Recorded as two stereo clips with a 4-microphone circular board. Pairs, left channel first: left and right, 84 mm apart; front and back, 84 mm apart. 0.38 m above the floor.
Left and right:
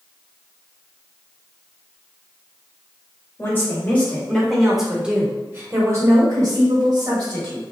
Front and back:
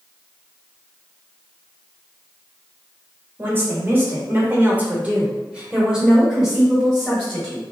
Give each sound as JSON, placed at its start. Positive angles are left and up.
{"t": 3.4, "sound": "a woman speaking", "azimuth_deg": 135, "distance_m": 1.3}